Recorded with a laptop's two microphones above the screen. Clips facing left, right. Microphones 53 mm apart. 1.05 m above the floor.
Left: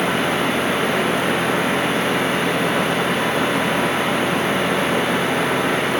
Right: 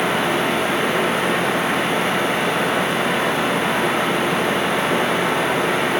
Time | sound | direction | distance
0.0 | a fan | 5° right (ahead or behind) | 1.0 m